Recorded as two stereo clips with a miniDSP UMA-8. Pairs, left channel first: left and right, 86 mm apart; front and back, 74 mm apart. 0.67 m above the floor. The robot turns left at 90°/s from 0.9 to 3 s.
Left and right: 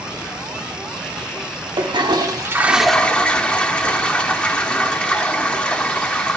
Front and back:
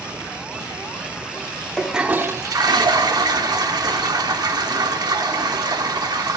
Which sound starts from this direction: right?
A toilet flushing, at 1.8 s.